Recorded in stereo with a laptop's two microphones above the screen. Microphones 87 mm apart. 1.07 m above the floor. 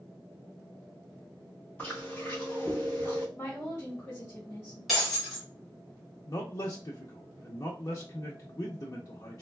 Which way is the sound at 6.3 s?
45° left (ahead or behind).